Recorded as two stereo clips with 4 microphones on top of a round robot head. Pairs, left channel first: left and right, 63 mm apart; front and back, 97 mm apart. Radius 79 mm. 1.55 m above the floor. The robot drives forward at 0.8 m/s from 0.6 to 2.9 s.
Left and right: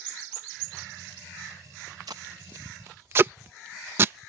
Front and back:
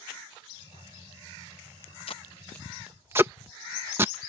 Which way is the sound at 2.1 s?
40° right.